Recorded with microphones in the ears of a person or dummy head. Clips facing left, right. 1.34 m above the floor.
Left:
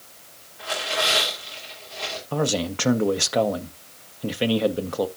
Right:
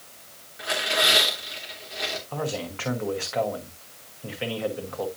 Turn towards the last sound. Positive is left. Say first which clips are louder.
# left 8 dB
turn(degrees=45)  # may be behind; listen again after turning